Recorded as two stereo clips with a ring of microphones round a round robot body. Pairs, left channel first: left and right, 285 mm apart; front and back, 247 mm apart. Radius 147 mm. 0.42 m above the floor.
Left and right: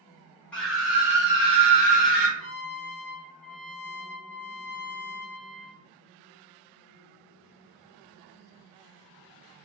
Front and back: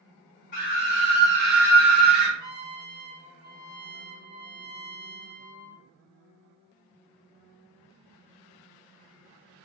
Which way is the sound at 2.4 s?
30° right.